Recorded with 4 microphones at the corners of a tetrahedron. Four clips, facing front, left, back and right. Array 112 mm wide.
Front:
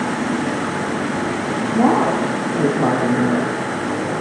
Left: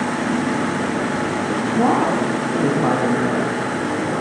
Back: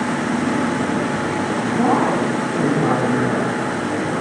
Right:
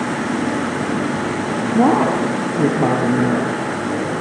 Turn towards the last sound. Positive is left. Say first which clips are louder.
# right 3 dB, front 2 dB
turn(degrees=-65)